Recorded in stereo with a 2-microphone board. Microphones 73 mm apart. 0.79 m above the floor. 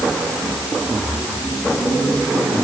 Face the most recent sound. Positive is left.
No sound to turn to.